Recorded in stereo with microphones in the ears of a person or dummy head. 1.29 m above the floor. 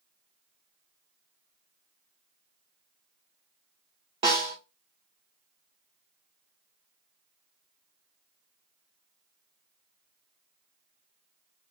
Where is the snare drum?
30° right (ahead or behind), 1.5 m.